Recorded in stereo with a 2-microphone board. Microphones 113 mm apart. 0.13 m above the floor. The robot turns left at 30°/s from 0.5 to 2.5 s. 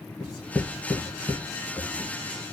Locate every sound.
0.2 s writing: 5° left (ahead or behind), 1.4 m; by 2.1 s 25° left (ahead or behind), 1.4 m